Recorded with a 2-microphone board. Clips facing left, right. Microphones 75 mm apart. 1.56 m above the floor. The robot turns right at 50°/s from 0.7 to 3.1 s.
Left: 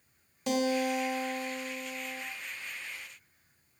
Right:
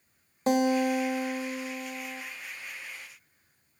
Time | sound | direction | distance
0.5 | a guitar | 130° right | 0.9 m